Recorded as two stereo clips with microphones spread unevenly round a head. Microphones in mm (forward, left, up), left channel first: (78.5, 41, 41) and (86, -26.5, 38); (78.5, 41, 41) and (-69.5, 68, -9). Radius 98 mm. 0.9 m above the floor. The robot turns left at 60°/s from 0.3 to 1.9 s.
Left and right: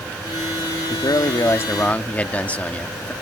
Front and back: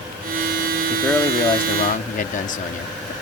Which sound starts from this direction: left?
A man speaking, at 0.9 s.